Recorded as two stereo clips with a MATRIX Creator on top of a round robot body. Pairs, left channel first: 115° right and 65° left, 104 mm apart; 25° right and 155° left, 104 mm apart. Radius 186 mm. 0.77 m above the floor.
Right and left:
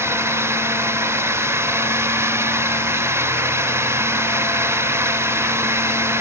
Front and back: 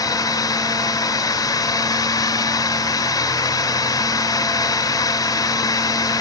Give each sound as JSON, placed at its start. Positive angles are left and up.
{"t": 0.0, "sound": "a drone", "azimuth_deg": 10}